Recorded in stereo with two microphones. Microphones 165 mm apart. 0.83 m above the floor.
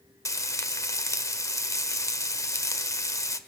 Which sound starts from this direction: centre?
Frying, at 0.2 s.